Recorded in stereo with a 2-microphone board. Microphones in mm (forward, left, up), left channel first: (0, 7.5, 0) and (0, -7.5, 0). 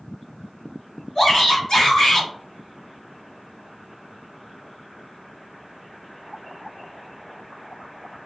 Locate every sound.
1.1 s a shout: 40° left (ahead or behind), 1.5 m